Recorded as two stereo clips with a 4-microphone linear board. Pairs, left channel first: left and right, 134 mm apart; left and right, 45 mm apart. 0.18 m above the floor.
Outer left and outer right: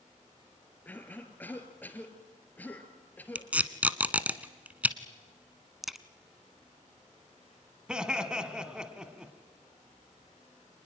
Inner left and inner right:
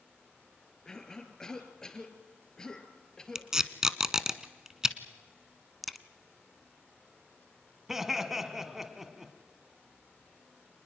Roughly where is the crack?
Centre.